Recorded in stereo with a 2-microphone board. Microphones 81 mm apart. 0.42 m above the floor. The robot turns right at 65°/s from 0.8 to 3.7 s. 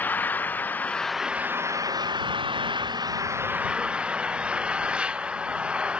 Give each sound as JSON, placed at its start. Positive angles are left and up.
{"t": 0.0, "sound": "an engine running", "azimuth_deg": 160}